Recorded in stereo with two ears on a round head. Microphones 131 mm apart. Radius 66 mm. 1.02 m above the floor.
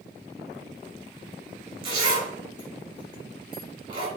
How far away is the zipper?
About 3.5 m.